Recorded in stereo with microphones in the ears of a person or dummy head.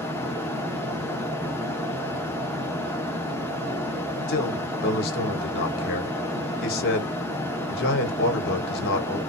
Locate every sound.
0.0 s a fan: 10° left (ahead or behind), 0.7 m
4.3 s a man speaking: 50° left (ahead or behind), 1.3 m